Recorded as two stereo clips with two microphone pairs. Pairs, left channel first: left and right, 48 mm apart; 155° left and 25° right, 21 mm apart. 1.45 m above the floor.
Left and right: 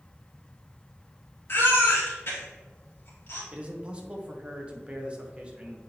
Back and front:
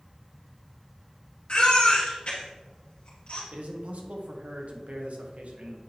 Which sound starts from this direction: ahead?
A man speaking, at 3.5 s.